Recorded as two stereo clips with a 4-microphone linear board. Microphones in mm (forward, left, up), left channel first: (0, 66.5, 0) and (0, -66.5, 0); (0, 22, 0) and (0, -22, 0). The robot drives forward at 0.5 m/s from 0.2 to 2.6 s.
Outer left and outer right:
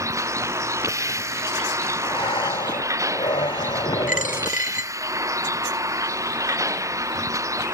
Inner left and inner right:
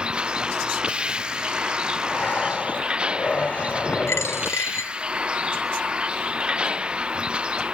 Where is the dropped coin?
85° left.